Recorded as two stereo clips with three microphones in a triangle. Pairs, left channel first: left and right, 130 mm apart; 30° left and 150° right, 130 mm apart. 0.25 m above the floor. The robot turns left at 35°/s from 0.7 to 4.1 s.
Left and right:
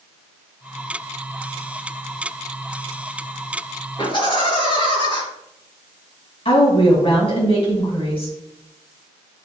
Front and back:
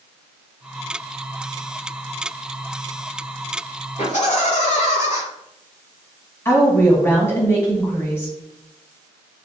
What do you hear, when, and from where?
4.0 s laughter: 45° left, 3.5 m; by 5.2 s 40° left, 3.5 m
6.5 s a woman speaking: 90° left, 1.8 m